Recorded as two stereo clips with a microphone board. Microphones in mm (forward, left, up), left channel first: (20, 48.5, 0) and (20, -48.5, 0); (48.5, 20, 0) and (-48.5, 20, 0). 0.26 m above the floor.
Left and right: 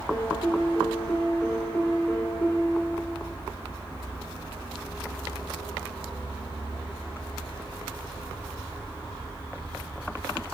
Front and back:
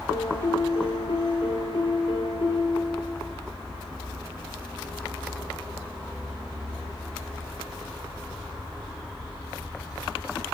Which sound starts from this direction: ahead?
A piano, at 0.1 s.